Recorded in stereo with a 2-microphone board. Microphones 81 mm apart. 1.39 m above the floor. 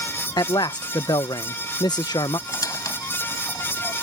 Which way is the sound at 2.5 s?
50° left (ahead or behind).